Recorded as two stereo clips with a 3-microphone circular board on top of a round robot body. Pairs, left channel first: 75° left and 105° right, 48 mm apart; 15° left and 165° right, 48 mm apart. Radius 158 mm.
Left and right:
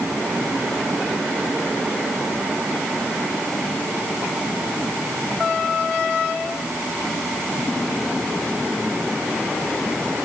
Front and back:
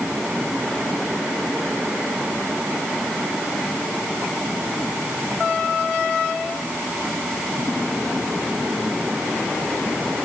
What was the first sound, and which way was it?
Only background noise.